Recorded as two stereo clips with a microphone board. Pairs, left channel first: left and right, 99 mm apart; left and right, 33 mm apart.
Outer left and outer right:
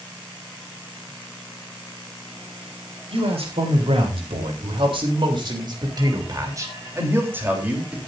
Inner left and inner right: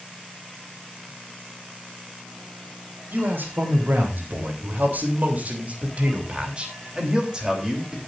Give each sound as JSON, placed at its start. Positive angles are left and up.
{"t": 3.1, "sound": "a man speaking", "side_deg": -80, "distance_m": 4.0}